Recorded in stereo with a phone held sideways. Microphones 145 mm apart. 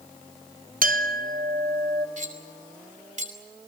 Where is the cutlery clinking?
60° right (ahead or behind), 3 m.